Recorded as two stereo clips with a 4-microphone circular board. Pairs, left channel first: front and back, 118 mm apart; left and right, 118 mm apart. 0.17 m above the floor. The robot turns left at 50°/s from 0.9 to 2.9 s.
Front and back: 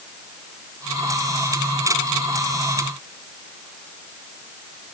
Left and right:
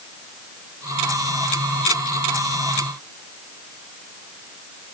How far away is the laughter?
I don't hear laughter.